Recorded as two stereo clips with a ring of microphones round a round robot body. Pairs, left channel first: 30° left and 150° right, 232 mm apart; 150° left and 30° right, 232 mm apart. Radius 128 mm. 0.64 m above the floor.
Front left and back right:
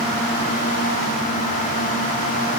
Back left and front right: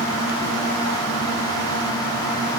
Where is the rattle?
I don't hear a rattle.